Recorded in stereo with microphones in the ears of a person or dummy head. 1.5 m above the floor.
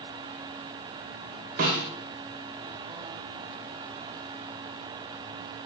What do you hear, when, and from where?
1.6 s a snare drum: 55° right (ahead or behind), 2.5 m